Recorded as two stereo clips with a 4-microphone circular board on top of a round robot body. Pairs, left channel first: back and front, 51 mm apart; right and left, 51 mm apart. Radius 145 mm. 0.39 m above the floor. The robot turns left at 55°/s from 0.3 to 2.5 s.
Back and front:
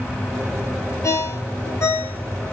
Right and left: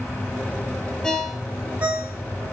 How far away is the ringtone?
About 1.0 m.